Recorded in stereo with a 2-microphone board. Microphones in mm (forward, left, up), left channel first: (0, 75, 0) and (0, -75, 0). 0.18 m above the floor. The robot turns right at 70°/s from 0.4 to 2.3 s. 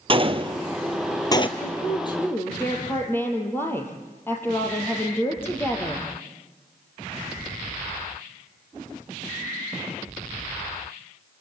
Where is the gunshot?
35° right (ahead or behind), 1.2 m; by 1.5 s 40° left (ahead or behind), 1.2 m.